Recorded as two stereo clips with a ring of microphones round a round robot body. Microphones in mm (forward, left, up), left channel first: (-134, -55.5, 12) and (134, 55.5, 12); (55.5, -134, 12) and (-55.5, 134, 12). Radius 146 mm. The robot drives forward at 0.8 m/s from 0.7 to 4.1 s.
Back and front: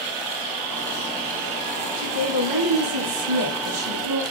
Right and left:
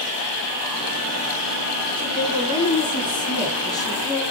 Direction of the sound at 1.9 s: 5° left.